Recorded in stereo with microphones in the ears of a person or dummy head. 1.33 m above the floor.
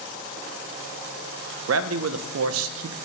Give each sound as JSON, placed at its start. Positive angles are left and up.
{"t": 1.7, "sound": "a man speaking", "side_deg": -80, "distance_m": 0.6}